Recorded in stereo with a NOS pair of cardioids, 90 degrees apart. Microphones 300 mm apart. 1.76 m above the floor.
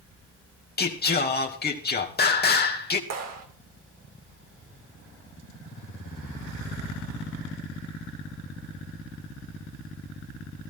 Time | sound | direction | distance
0.8 | singing | 30° left | 2.5 m
3.1 | a clap | 60° right | 4 m